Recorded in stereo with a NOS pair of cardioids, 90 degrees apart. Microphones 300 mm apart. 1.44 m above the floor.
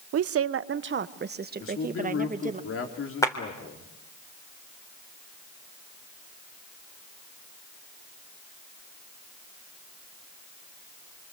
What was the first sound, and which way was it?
A woman speaking, 55° right.